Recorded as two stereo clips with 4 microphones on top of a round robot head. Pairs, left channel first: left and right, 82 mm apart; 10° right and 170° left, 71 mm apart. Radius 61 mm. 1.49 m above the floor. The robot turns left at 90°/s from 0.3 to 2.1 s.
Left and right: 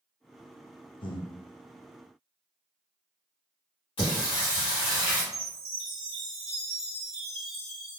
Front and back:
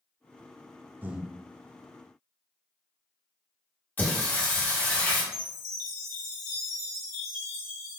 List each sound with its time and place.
1.0 s breathing: 105° left, 0.6 m; by 1.3 s 80° left, 0.6 m
4.0 s singing: 55° left, 1.6 m
5.3 s a chime: 20° left, 1.4 m